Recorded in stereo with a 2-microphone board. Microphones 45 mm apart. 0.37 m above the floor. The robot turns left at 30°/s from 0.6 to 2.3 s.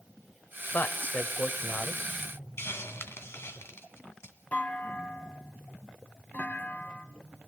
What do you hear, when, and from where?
0.7 s a man speaking: 75° left, 1.1 m; by 2.1 s 35° left, 1.1 m
2.6 s a hiss: 70° left (ahead or behind), 1.9 m
4.5 s a clunk: 35° left (ahead or behind), 1.6 m